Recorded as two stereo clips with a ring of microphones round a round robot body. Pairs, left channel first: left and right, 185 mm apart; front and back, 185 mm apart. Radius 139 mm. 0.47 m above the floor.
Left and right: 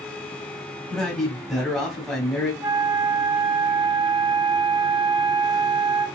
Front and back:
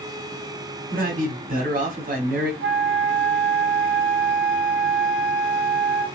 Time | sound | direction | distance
0.9 | a man speaking | straight behind | 1.6 m
2.6 | a flute | 160° right | 1.2 m